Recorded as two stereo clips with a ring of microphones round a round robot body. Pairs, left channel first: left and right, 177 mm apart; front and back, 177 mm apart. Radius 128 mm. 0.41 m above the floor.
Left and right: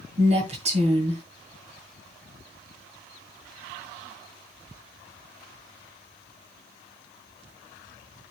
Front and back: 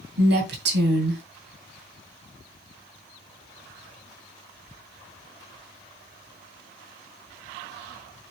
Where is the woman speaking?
150° right, 2.5 m.